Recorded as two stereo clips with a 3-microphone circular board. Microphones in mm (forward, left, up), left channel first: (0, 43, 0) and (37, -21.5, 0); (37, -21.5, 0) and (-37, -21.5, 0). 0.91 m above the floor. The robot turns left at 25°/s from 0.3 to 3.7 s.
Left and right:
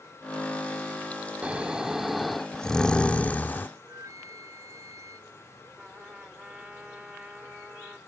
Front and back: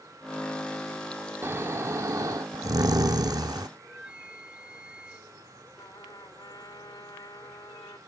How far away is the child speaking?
No child speaking in this recording.